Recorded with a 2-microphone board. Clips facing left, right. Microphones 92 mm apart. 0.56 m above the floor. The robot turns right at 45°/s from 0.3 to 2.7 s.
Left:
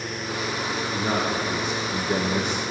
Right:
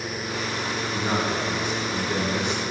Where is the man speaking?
15° left, 0.8 m; by 2.6 s 90° left, 0.8 m.